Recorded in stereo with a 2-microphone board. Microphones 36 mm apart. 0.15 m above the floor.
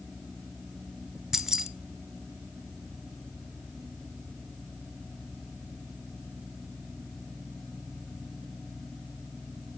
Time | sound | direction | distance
1.3 | keys jangling | 20° right (ahead or behind) | 1.4 m